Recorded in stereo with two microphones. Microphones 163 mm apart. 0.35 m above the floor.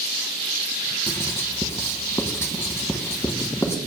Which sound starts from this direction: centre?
Writing, at 1.1 s.